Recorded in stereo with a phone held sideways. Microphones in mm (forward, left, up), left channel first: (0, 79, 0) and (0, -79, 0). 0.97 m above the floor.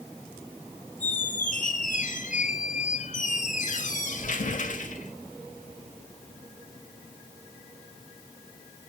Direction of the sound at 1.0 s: 55° left (ahead or behind).